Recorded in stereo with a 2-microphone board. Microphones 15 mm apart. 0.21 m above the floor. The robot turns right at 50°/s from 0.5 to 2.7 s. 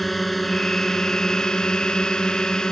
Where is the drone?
10° left; by 2.7 s 120° left.